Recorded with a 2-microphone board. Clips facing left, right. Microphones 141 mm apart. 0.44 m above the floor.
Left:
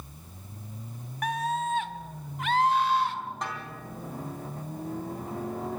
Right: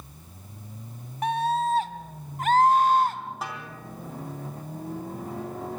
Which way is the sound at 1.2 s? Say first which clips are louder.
Right 4 dB; 25° right (ahead or behind).